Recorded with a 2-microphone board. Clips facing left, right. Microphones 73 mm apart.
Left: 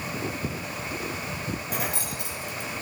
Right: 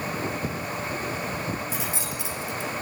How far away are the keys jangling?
About 1.7 m.